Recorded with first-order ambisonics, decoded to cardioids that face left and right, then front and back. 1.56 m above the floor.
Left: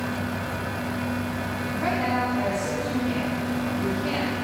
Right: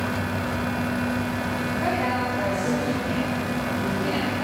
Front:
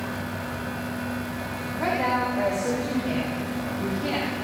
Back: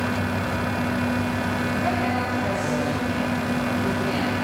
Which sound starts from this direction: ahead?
A woman speaking, at 1.8 s.